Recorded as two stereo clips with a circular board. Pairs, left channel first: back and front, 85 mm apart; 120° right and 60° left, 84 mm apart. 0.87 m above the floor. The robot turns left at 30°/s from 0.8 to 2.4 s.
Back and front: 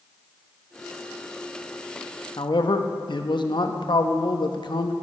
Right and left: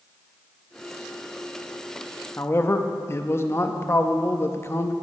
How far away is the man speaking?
About 0.8 m.